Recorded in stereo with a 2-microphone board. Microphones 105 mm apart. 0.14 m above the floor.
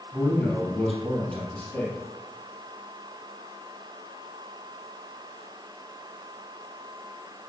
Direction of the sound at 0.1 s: 5° left (ahead or behind).